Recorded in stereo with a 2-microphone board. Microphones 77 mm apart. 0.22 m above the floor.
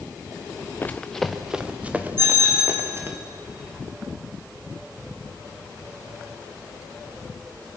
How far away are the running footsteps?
About 1.1 m.